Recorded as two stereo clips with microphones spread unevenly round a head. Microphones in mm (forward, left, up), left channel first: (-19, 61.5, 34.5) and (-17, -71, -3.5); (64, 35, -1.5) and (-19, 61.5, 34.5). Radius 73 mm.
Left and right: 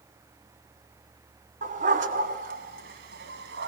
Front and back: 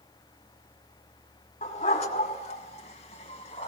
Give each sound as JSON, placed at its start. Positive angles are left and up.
{"t": 1.6, "sound": "a dog barking", "azimuth_deg": -45, "distance_m": 3.0}